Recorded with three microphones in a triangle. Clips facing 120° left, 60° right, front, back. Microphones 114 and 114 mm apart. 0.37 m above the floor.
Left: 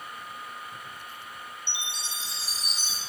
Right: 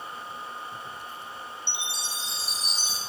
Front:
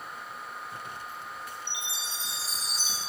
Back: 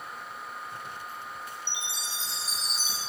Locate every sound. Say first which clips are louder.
1.7 s a chime: right 2 dB, even; 125° left, 1.8 m